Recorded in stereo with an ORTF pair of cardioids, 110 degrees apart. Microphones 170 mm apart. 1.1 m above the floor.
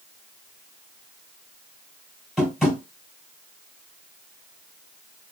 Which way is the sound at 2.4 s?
Straight ahead.